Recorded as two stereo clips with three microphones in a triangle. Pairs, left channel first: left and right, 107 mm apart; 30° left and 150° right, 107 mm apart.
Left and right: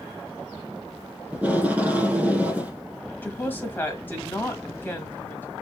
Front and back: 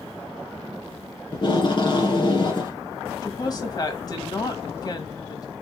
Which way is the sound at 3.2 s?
30° left.